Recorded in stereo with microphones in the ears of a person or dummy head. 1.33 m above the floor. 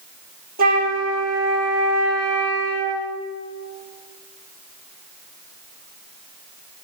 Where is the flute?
45° right (ahead or behind), 1.9 m.